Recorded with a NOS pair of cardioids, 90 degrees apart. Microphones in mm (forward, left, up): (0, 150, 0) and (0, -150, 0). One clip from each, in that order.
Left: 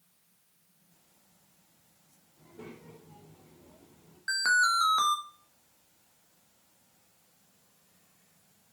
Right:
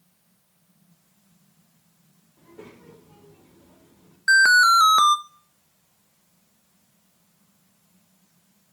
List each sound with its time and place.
2.4 s a child speaking: 35° right, 3.5 m
4.3 s an alarm: 55° right, 0.9 m